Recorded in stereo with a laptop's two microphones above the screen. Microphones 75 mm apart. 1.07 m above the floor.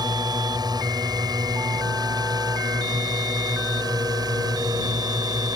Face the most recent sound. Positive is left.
turn(degrees=-60)  # may be behind; listen again after turning